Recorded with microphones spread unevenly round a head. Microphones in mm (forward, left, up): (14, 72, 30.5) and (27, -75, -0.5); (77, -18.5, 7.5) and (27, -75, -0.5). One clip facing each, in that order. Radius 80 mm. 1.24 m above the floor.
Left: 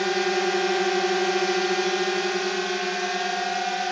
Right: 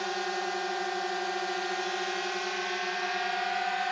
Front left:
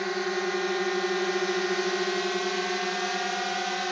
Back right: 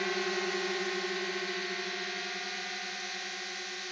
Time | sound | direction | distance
0.0 | a drone | 120° left | ?